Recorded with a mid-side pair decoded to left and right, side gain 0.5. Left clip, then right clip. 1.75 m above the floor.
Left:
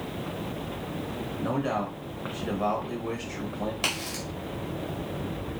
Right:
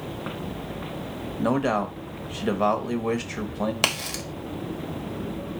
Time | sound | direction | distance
1.4 | a man speaking | 55° right | 0.9 m
3.8 | a crack | 60° right | 1.0 m